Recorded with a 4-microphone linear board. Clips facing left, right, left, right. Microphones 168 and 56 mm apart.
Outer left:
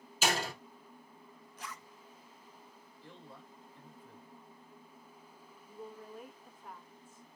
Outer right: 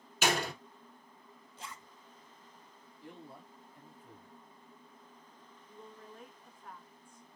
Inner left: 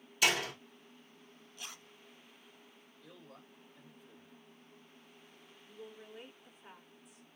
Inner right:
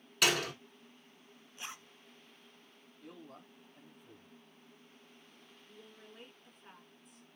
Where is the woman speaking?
5° left (ahead or behind), 1.2 m.